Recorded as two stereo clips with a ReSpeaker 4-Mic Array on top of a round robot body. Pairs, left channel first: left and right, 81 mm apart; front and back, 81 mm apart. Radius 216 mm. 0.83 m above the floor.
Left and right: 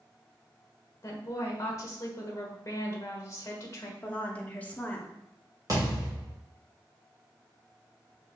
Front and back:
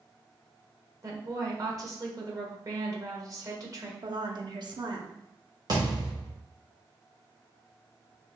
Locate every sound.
1.0 s a woman speaking: 140° left, 1.8 m
4.0 s a woman speaking: 160° left, 1.3 m
5.7 s a thud: 140° right, 1.2 m